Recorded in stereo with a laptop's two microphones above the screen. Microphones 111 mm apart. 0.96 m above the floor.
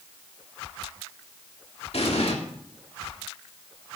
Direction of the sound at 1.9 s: 65° left (ahead or behind).